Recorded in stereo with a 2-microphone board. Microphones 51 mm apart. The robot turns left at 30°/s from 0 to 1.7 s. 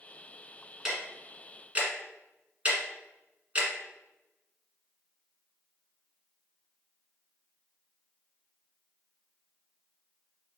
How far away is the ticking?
About 1.3 m.